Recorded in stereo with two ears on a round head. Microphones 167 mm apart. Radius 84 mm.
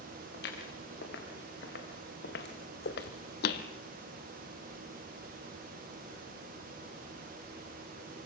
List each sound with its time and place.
0.3 s footsteps: 60° left (ahead or behind), 6 m; by 3.7 s 55° left (ahead or behind), 0.9 m